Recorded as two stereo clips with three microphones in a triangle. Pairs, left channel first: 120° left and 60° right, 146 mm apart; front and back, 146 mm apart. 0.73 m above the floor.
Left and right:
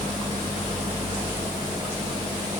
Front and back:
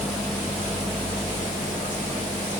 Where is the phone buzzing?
I don't hear a phone buzzing.